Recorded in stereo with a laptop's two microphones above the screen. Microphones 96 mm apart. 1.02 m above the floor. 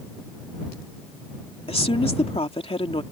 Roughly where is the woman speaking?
Left.